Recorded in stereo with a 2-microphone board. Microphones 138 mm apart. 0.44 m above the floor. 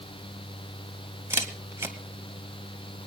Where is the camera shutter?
20° right (ahead or behind), 2 m.